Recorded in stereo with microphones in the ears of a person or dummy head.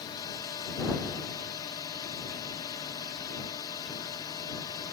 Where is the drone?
20° left (ahead or behind).